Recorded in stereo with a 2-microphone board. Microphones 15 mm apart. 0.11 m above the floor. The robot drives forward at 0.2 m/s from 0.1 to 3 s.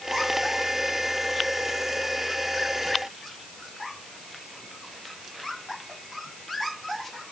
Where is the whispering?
I don't hear whispering.